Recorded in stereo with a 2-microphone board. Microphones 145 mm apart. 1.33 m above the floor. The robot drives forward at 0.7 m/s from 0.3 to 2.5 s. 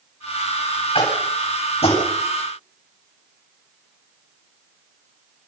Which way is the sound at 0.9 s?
40° left (ahead or behind).